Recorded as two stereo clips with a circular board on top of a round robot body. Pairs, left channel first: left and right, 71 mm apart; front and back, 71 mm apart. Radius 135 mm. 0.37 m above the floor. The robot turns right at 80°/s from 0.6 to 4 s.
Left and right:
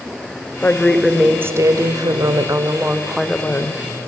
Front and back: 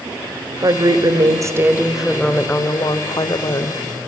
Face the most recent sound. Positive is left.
turn(degrees=65)